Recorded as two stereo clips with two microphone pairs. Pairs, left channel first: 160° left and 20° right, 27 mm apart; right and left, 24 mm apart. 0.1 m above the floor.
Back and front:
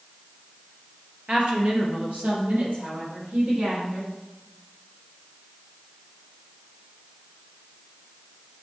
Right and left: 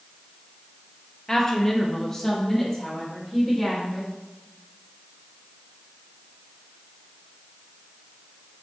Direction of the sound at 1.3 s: 25° right.